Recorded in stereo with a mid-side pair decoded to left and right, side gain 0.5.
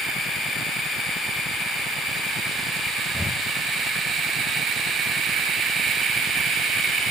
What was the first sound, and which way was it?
Breathing, 10° left.